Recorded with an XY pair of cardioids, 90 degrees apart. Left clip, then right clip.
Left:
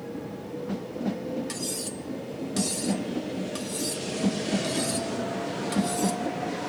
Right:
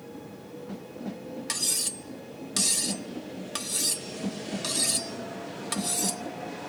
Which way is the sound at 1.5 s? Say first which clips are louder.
Right 3 dB; 50° right.